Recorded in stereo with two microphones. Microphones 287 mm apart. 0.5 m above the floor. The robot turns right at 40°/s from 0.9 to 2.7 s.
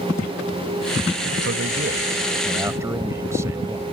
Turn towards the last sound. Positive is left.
turn(degrees=-10)